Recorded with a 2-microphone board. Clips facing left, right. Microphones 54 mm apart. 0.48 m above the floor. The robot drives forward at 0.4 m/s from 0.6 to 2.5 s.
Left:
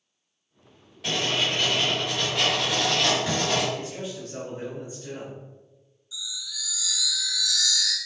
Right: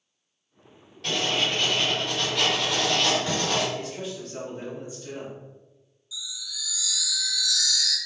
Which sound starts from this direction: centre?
Writing, at 1.0 s.